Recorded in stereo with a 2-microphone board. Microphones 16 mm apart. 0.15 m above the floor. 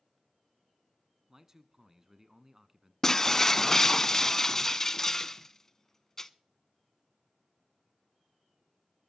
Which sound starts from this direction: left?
Breaking glass, at 3.0 s.